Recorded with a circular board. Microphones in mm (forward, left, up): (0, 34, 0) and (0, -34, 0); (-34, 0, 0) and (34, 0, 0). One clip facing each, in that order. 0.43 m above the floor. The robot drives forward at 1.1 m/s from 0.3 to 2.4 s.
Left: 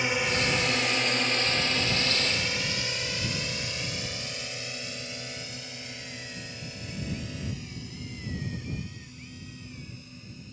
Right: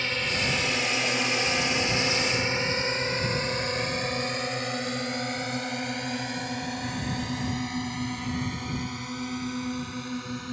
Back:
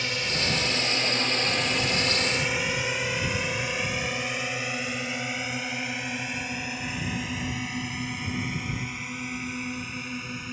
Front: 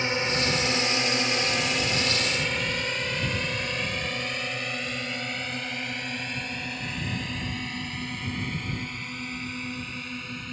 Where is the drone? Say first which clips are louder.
Left 2 dB, front 3 dB; 30° left; by 10.5 s 95° right.